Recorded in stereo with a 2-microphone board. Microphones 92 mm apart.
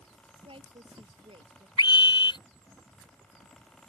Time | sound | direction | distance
0.5 | a woman speaking | 80° right | ?
1.8 | a scream | 60° left (ahead or behind) | ?